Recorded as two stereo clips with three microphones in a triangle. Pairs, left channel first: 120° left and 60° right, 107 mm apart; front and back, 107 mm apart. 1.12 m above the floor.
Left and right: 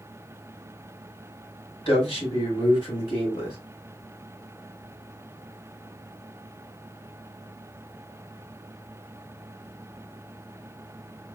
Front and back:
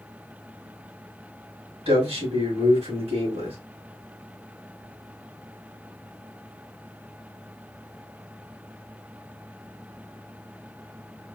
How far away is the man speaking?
About 3.5 m.